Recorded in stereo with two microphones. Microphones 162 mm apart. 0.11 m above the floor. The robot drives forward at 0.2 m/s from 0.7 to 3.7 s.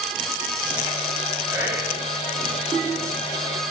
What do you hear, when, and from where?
1.5 s whispering: 15° right (ahead or behind), 1.2 m